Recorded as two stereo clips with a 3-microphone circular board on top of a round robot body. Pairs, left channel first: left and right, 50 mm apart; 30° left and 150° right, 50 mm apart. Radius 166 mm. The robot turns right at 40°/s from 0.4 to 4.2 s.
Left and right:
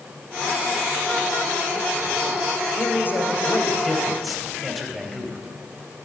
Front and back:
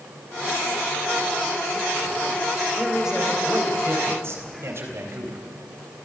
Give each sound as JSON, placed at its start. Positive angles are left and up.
{"t": 2.8, "sound": "a man speaking", "azimuth_deg": 125, "distance_m": 4.0}